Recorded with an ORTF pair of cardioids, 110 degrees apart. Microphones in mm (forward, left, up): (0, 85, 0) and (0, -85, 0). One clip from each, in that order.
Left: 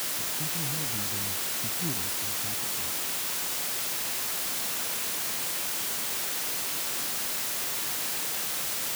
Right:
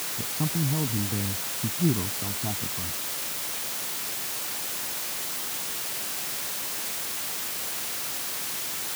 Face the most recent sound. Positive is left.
turn(degrees=-65)